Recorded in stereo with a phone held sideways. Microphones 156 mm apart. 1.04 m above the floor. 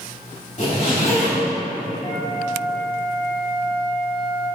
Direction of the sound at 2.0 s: 20° left (ahead or behind).